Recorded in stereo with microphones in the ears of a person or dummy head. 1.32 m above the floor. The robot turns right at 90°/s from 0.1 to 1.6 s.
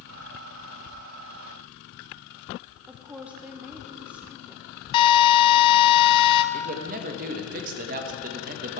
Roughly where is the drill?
Left.